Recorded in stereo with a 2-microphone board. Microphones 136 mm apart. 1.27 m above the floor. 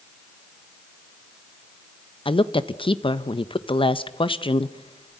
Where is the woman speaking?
40° left (ahead or behind), 0.9 m.